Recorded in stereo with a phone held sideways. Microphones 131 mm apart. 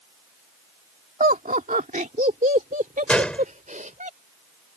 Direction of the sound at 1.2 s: 70° right (ahead or behind).